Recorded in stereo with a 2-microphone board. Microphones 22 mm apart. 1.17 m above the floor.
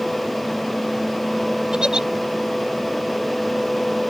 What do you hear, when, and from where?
1.7 s a giggle: 40° right (ahead or behind)